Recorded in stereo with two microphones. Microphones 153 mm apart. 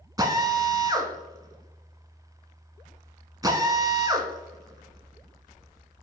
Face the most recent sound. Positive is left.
turn(degrees=-25)  # may be behind; listen again after turning